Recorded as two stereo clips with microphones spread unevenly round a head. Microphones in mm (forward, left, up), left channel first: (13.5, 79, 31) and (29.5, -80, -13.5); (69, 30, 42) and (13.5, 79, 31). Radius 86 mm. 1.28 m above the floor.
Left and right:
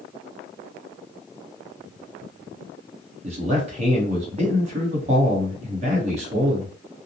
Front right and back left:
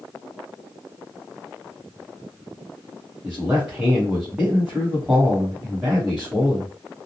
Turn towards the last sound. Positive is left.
turn(degrees=-140)